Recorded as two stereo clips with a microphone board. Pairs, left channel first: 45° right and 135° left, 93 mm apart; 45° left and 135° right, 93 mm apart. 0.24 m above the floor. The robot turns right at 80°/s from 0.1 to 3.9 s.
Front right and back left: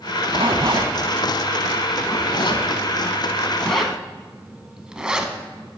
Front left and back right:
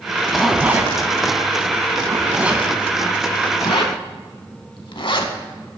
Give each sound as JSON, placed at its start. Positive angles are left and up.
{"t": 0.3, "sound": "a zipper", "azimuth_deg": 125, "distance_m": 0.6}